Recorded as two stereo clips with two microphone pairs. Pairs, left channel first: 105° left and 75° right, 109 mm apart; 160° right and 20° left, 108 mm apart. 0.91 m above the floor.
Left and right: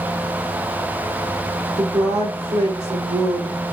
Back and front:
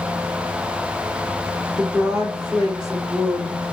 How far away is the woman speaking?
About 1.9 m.